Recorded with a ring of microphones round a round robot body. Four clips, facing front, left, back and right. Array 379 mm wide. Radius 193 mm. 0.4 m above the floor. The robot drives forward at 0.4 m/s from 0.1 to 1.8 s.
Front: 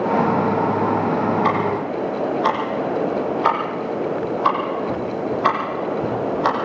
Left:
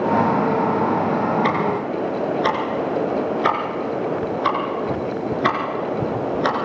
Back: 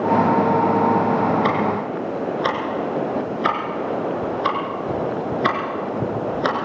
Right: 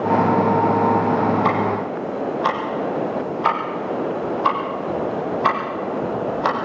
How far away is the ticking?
About 4.5 m.